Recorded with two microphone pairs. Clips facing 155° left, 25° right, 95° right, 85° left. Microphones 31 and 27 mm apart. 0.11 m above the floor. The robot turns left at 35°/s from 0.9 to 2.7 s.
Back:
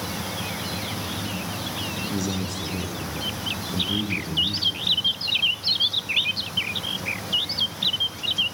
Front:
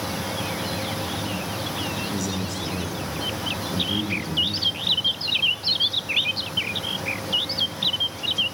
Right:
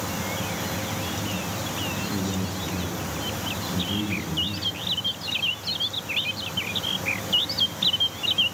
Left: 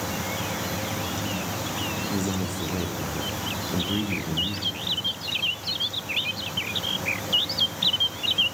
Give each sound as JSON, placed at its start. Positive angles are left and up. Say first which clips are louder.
{"t": 2.1, "sound": "a man speaking", "louder": "even, left 1 dB", "azimuth_deg": 85, "distance_m": 6.0}